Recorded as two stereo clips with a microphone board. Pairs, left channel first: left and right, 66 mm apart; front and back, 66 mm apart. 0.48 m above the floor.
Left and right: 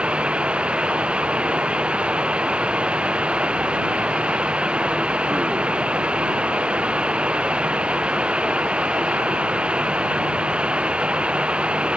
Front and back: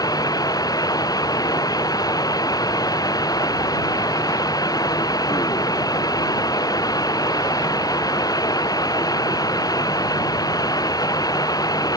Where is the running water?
15° right.